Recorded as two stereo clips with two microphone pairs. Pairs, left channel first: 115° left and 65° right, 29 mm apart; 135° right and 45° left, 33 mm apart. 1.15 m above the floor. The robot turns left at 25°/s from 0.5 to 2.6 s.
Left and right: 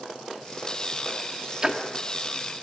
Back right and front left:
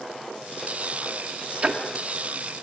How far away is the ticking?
About 1.8 m.